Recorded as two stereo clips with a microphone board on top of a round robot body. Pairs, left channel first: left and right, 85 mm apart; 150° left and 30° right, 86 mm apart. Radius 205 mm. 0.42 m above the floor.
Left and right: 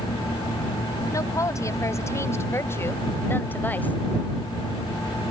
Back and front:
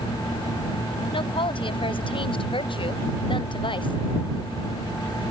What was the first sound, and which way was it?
A woman speaking, 140° left.